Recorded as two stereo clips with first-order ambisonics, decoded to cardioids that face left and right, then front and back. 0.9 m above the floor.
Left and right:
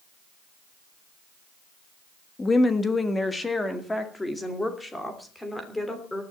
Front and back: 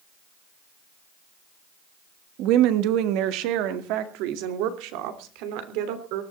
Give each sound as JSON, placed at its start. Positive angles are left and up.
{"t": 2.4, "sound": "a woman speaking", "azimuth_deg": 165, "distance_m": 1.5}